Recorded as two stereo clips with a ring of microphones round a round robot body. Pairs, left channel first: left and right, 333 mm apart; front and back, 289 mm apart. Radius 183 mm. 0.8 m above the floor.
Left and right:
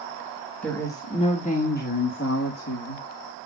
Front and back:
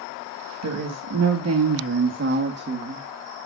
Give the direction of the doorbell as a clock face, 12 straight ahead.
No doorbell in this recording.